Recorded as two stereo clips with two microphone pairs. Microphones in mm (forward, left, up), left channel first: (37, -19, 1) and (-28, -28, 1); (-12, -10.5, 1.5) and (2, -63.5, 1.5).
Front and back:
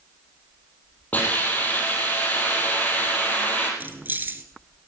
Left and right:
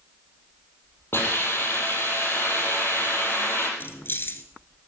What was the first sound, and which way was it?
A hiss, 70° left.